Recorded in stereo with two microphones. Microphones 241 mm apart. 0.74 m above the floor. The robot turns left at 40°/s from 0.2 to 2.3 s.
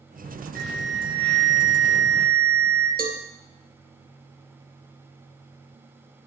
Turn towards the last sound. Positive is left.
turn(degrees=-40)  # may be behind; listen again after turning